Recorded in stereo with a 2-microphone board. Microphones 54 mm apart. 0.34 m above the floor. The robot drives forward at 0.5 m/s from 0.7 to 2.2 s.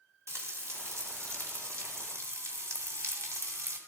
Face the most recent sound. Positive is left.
turn(degrees=-60)  # may be behind; listen again after turning